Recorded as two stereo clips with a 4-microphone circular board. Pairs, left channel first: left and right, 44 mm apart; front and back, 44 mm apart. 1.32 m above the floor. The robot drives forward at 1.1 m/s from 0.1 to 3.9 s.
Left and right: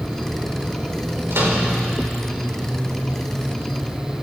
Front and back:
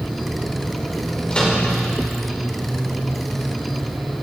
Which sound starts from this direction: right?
A microwave, at 1.3 s.